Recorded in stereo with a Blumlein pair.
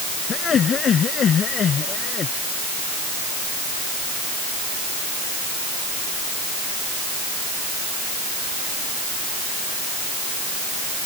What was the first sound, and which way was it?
Laughter, 25° left.